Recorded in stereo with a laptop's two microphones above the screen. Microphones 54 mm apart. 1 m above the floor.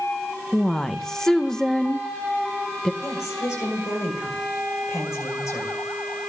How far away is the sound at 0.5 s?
About 0.6 m.